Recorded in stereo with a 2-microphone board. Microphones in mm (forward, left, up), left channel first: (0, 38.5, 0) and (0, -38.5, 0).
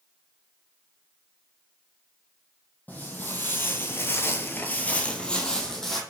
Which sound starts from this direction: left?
Footsteps, at 2.9 s.